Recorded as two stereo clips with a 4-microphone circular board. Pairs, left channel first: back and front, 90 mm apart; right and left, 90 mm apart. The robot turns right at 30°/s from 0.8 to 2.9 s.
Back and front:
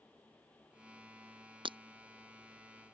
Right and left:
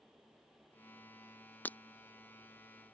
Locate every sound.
1.6 s breaking glass: 20° right; by 1.8 s 15° right